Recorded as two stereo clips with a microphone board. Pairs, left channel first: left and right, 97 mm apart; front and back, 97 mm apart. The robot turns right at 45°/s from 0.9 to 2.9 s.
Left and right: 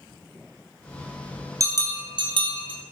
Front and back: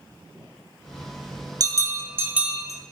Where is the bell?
140° right, 0.5 m; by 2.8 s 85° right, 0.5 m.